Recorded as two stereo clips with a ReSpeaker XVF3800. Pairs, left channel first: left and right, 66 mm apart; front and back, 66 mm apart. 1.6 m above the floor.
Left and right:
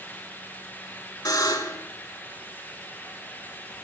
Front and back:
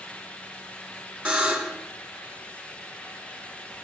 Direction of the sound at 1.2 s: 105° left.